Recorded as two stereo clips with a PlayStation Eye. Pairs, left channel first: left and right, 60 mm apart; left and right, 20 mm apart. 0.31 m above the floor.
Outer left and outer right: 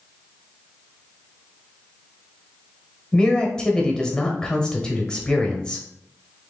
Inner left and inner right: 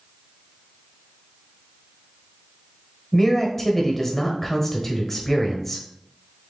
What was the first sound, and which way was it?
A man speaking, 10° left (ahead or behind).